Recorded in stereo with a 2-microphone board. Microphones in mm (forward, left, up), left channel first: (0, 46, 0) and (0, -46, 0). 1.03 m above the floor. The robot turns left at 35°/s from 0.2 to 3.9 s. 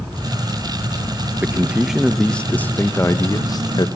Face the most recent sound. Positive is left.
turn(degrees=115)